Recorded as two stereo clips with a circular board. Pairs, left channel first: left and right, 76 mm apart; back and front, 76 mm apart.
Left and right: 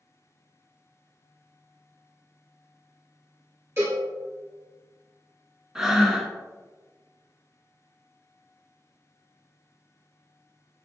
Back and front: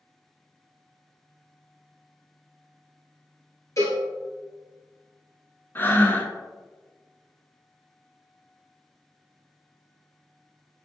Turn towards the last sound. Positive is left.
turn(degrees=-165)